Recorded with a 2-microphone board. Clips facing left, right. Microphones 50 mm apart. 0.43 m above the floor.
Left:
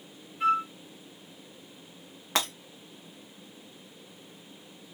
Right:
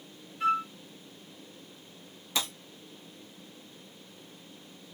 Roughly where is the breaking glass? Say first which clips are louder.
Left 4 dB; left.